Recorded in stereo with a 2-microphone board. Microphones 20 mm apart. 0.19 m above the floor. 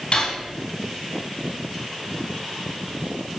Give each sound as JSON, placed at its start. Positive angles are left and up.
{"t": 0.1, "sound": "cutlery clinking", "side_deg": 55, "distance_m": 2.5}